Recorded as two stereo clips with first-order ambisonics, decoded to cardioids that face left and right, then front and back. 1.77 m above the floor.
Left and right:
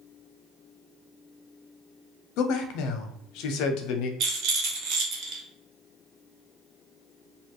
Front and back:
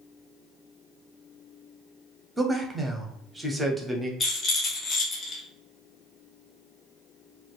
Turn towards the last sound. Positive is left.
turn(degrees=-65)